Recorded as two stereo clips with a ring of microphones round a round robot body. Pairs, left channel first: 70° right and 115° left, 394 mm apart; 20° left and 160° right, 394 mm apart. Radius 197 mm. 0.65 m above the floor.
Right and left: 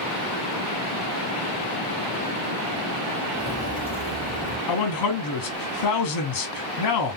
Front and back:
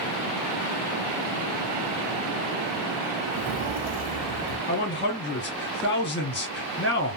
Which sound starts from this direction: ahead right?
A man speaking, at 4.7 s.